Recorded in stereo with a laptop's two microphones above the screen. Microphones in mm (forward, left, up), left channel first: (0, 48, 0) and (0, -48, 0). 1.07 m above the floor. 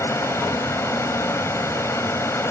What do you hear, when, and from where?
0.0 s a fan: 30° left (ahead or behind)